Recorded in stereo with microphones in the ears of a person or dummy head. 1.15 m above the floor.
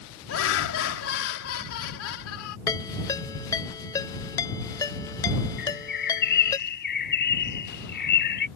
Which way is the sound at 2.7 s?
15° left (ahead or behind).